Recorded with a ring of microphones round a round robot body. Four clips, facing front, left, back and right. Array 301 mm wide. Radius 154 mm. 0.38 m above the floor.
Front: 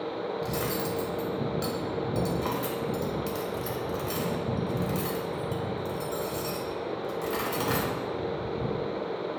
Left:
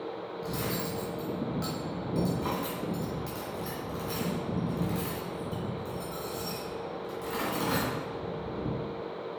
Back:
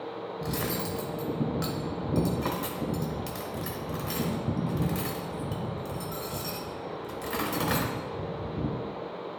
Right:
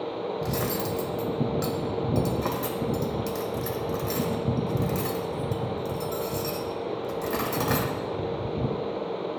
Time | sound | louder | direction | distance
0.4 | cutlery clinking | right 3 dB, back 1 dB | 105° right | 1.0 m